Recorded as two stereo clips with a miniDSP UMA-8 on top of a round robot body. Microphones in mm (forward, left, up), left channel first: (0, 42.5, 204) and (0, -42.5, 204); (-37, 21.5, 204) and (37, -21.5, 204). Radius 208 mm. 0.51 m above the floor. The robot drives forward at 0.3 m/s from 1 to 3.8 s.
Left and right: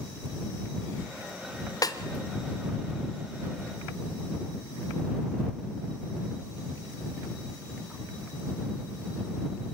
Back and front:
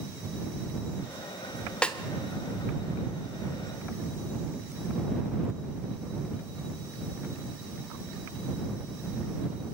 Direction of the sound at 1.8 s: 75° left.